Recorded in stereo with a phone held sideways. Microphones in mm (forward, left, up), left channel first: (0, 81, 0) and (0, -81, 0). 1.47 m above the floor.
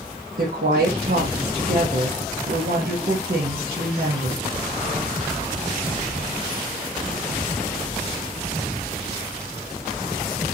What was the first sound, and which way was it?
A woman speaking, 60° right (ahead or behind).